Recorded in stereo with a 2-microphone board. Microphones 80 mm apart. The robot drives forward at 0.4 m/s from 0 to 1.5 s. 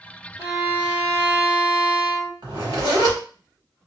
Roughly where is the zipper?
Right.